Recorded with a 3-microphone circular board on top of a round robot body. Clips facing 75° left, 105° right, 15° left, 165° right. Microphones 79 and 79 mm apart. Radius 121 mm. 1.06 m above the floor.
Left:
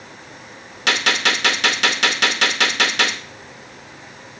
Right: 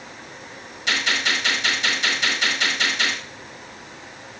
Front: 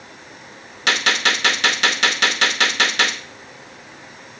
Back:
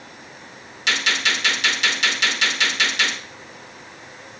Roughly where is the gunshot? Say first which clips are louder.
Left 4 dB, front 3 dB; ahead left.